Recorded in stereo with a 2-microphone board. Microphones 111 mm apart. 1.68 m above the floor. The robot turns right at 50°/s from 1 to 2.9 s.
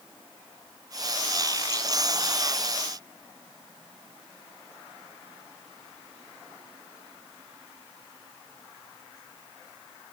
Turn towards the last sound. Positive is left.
No sound to turn to.